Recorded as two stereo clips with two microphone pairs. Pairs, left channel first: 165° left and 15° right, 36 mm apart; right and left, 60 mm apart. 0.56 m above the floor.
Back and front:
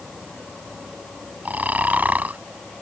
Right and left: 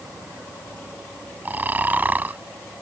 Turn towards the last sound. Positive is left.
turn(degrees=25)